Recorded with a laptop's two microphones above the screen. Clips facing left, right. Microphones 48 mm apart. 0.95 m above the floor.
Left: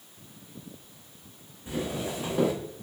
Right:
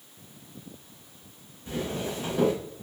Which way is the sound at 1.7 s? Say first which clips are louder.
Even; 10° left (ahead or behind).